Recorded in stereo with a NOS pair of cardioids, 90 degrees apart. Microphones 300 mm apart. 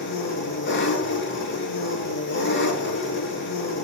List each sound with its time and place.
0.0 s an engine running: 40° left, 5 m